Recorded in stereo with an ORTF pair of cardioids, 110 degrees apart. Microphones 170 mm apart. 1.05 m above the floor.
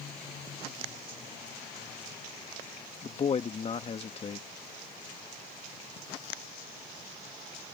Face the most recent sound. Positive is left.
turn(degrees=35)